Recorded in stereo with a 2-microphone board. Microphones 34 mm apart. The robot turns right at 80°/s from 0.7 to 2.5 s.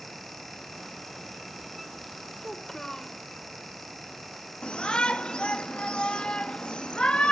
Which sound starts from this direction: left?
A shout, at 4.6 s.